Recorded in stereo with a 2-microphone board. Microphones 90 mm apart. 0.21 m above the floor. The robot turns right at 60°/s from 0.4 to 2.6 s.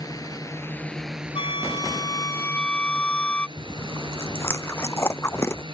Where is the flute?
90° left; by 3.5 s 165° left.